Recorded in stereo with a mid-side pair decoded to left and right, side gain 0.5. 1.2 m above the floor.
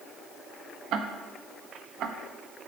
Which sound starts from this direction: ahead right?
Ticking, at 0.9 s.